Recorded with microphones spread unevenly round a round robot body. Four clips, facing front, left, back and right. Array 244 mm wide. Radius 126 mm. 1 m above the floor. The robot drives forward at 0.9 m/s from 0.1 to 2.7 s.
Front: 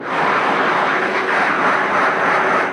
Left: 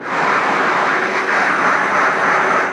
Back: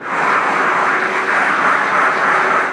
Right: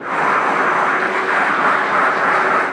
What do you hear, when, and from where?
Only background noise.